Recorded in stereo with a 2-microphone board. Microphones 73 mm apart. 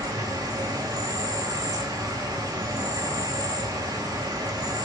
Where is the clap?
I don't hear a clap.